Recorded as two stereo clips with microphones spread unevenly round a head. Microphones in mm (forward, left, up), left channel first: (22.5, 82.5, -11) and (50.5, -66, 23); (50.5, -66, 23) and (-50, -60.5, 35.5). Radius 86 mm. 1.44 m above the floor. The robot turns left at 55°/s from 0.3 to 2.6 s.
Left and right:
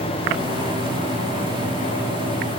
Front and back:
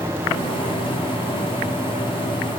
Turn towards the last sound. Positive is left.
No sound to turn to.